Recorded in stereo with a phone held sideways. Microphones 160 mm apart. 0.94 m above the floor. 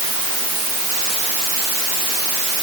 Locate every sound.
Only background noise.